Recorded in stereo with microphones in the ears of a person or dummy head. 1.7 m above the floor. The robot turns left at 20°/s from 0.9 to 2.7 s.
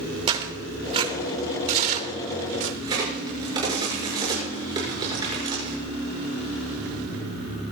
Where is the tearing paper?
30° right (ahead or behind), 2.5 m; by 2.7 s 65° right (ahead or behind), 2.5 m.